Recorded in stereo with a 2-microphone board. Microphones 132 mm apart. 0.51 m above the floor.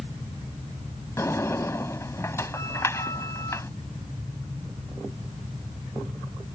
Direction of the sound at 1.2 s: 20° left (ahead or behind).